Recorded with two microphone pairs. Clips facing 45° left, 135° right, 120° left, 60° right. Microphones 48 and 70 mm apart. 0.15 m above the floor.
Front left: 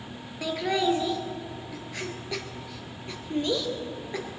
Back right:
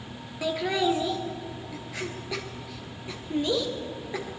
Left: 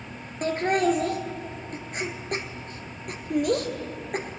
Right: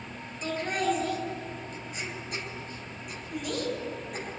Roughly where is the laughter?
Behind left.